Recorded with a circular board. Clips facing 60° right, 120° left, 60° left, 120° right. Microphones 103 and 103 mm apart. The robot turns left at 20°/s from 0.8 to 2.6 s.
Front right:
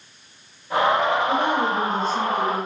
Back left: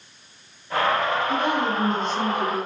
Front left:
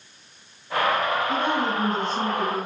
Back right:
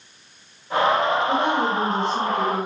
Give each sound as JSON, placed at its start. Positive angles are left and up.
{"t": 1.3, "sound": "a woman speaking", "azimuth_deg": -100, "distance_m": 4.0}